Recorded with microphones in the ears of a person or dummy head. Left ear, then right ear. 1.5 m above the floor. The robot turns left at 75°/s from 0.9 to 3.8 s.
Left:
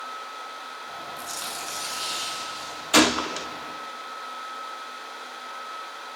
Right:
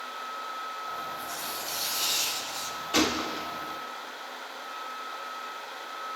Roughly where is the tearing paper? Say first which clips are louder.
Left 2 dB; ahead left.